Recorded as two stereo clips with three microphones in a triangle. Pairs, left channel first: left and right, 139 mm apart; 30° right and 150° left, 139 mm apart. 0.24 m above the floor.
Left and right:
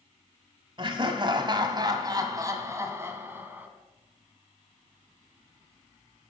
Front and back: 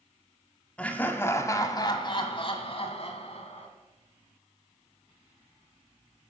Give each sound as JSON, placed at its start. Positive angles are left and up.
{"t": 0.8, "sound": "laughter", "azimuth_deg": -105, "distance_m": 1.5}